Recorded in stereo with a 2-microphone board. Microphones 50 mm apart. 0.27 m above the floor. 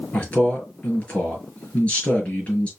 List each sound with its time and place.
0.1 s a man speaking: 30° left (ahead or behind), 3.5 m